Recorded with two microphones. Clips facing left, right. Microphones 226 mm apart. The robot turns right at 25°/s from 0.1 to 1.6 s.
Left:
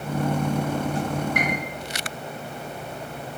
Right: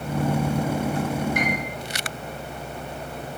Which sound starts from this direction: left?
A piano, at 1.4 s.